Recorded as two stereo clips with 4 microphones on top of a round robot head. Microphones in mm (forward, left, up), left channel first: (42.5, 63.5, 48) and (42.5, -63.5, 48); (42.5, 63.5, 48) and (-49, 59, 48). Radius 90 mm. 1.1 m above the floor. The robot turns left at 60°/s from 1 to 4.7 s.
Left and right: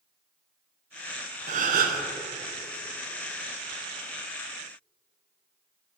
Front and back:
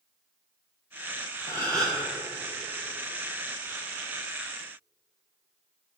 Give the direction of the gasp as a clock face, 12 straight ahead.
2 o'clock.